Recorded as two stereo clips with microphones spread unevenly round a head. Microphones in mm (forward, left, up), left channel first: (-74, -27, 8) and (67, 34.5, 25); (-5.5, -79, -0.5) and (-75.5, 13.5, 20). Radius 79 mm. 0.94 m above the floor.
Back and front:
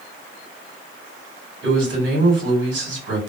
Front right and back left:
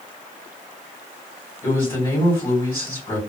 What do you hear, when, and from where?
1.6 s a man speaking: 20° left, 2.5 m